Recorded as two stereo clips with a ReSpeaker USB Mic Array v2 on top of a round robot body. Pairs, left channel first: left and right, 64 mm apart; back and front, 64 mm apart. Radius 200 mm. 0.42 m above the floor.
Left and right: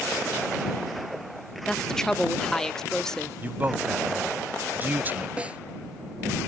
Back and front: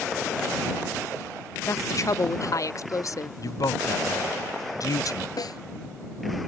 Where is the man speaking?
150° right.